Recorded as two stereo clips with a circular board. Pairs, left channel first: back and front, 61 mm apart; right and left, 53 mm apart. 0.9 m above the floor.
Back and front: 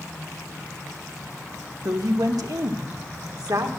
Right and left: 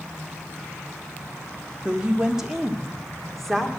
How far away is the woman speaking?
About 1.5 m.